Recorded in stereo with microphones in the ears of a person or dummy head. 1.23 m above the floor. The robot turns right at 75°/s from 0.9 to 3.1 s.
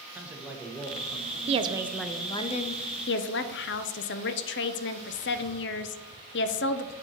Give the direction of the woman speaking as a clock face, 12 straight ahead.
1 o'clock.